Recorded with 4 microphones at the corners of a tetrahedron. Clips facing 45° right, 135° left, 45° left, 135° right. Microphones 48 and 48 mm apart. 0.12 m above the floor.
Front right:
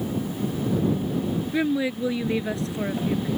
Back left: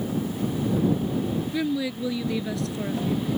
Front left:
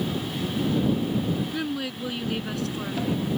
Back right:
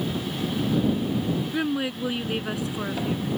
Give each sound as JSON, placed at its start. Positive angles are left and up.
{"t": 1.5, "sound": "a woman speaking", "azimuth_deg": -80}